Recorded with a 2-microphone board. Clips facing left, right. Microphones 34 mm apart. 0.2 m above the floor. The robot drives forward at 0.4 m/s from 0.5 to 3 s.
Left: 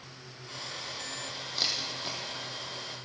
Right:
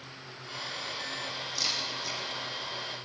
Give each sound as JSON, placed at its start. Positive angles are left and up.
{"t": 1.6, "sound": "a camera shutter", "side_deg": 40, "distance_m": 7.0}